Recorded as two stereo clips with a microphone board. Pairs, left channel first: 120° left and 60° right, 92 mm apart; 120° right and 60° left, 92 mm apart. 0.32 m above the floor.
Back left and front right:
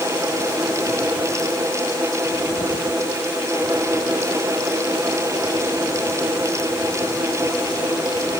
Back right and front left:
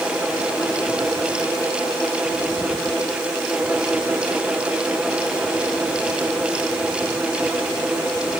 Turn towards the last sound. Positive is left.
No sound to turn to.